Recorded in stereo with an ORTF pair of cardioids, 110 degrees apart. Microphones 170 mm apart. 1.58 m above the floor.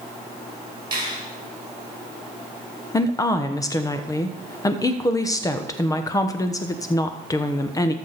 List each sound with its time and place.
0.9 s a finger snap: 30° right, 5.5 m
2.9 s a woman speaking: 20° left, 1.1 m